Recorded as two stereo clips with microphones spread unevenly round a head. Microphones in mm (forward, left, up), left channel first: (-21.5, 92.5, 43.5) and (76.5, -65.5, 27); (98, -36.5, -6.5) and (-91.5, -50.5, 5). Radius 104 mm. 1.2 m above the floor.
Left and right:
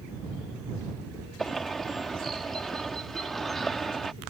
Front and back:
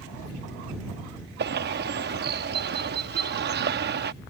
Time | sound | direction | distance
1.4 | a bird | 155° right | ?